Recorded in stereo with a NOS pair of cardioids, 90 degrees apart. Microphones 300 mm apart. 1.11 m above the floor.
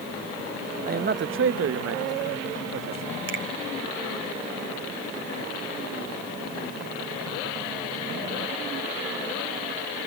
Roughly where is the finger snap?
Ahead right.